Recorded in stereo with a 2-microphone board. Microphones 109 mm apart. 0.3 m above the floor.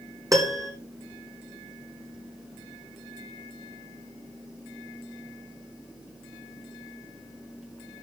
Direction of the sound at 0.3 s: 35° right (ahead or behind).